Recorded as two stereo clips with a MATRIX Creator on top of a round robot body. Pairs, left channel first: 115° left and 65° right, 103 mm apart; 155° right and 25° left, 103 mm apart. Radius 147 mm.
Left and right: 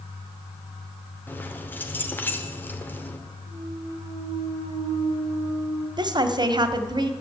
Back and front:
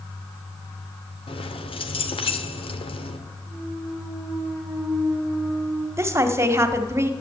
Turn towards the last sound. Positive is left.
turn(degrees=-35)